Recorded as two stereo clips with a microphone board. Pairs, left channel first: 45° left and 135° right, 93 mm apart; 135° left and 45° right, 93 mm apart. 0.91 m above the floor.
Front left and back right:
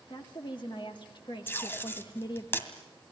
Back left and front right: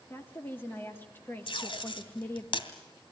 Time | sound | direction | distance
0.1 | a woman speaking | 70° left | 2 m
1.5 | tape being pulled | 110° left | 2.5 m